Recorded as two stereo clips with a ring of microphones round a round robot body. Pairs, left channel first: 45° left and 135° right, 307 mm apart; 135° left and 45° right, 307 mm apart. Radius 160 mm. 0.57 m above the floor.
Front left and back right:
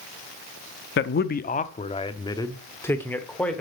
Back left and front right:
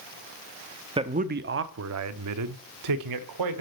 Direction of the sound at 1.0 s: 20° left.